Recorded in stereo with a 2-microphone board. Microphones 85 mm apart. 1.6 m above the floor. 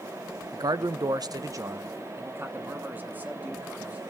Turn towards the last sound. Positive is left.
turn(degrees=-20)  # may be behind; listen again after turning